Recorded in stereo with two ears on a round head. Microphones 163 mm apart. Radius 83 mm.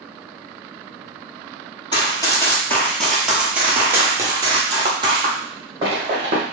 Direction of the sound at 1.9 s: 25° left (ahead or behind).